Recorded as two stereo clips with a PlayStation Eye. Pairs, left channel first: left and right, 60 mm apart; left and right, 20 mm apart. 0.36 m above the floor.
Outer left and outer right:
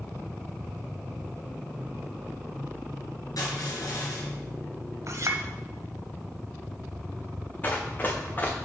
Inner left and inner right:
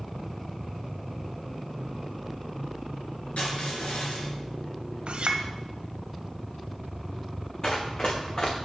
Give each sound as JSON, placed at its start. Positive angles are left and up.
{"t": 3.4, "sound": "crushing", "side_deg": 75, "distance_m": 3.5}
{"t": 5.1, "sound": "a clink", "side_deg": -60, "distance_m": 0.9}
{"t": 7.6, "sound": "running footsteps", "side_deg": 30, "distance_m": 1.7}